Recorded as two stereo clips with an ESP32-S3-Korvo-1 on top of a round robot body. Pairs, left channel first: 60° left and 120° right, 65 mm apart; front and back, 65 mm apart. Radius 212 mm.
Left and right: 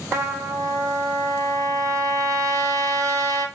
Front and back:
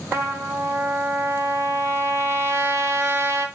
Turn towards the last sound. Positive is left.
turn(degrees=-140)